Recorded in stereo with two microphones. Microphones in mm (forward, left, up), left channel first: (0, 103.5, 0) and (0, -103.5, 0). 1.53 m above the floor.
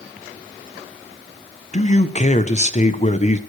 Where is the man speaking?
35° left (ahead or behind), 0.9 m.